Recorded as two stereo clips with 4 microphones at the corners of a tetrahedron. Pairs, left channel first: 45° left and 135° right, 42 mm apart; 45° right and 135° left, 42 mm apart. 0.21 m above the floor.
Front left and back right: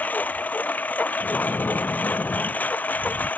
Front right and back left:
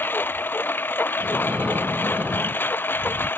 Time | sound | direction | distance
0.0 | a lawn mower | 5° right | ?
1.2 | breathing | 80° left | ?